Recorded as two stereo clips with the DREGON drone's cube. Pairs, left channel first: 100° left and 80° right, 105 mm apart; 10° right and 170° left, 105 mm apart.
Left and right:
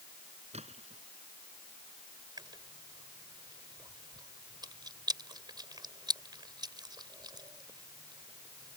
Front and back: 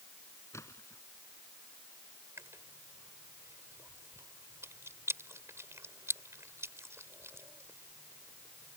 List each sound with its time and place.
0.5 s a splash: 75° right
2.4 s chewing: 125° right